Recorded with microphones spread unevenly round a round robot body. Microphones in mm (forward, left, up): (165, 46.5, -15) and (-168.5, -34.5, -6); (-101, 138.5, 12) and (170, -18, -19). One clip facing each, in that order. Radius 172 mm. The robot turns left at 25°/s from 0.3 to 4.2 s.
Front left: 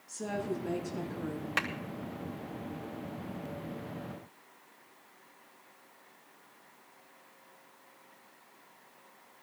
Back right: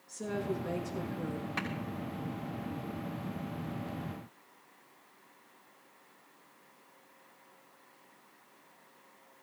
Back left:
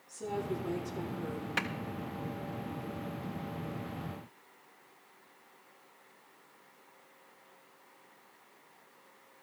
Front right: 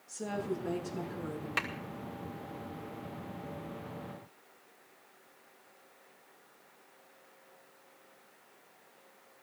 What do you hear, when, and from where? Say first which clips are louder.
0.1 s a woman speaking: even, even; 40° right, 6.5 m; by 1.5 s 70° right, 6.5 m
1.6 s a clap: even, back left 3 dB; 45° left, 3 m